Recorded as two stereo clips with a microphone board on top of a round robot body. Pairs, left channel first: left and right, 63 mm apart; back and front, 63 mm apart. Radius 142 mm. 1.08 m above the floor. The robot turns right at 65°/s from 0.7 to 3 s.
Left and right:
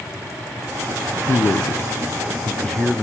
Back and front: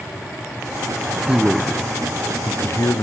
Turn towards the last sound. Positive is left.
turn(degrees=180)